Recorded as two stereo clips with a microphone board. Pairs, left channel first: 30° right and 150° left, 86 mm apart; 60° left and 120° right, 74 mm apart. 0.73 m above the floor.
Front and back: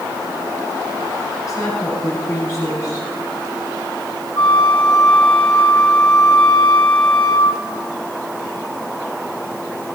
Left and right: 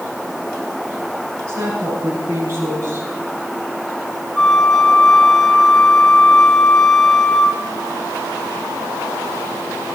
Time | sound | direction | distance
1.5 | a woman speaking | 75° right | 6 m
4.3 | a flute | 25° right | 3.5 m